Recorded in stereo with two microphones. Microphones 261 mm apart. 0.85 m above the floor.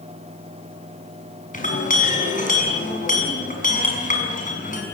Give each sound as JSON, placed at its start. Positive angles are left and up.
{"t": 1.5, "sound": "a clink", "side_deg": 30, "distance_m": 5.5}